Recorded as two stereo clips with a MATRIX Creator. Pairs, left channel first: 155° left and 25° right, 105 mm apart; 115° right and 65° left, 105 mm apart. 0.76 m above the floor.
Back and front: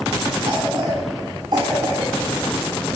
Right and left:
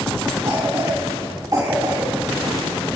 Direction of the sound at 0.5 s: 15° left.